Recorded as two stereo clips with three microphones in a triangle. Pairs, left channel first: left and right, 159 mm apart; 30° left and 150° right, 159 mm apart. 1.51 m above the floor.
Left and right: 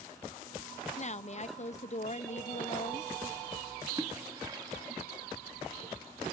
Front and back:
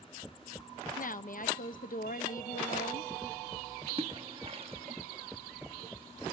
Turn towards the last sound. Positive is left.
turn(degrees=-140)